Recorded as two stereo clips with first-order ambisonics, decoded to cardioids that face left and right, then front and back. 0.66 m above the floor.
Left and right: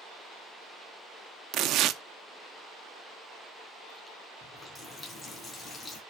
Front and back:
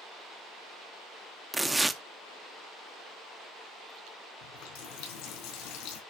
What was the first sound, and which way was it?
Tearing paper, 95° right.